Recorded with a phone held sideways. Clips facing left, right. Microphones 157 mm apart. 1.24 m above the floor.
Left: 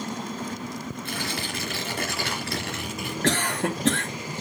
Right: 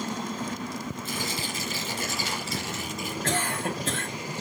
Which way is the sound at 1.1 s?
65° left (ahead or behind).